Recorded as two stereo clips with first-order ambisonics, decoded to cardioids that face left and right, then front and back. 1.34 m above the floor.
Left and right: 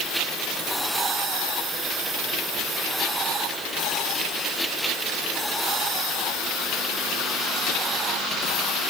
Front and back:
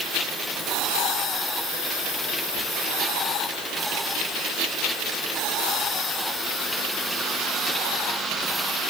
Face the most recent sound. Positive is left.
No sound to turn to.